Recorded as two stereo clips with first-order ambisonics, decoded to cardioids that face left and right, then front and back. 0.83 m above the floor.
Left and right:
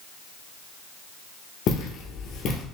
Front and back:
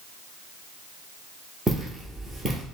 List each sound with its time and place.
1.7 s footsteps: 105° left, 1.0 m